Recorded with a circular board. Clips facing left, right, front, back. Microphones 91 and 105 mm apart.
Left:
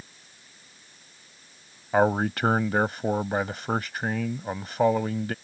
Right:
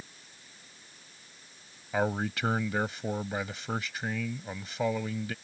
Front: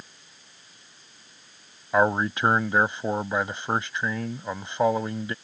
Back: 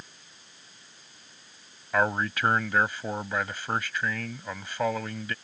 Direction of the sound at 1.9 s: 60° left.